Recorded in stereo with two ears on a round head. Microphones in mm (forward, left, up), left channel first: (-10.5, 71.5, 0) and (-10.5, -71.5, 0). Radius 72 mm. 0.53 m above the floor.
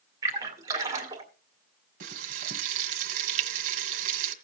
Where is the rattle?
I don't hear a rattle.